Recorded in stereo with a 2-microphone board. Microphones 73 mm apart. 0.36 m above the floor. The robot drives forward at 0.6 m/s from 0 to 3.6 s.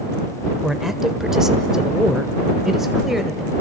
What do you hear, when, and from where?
0.6 s a man speaking: 5° right (ahead or behind), 1.0 m